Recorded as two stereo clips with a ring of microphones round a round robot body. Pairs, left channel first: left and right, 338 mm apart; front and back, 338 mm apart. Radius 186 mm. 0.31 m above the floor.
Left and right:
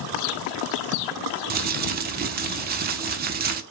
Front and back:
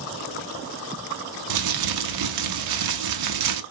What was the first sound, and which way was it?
Crumpling, 155° right.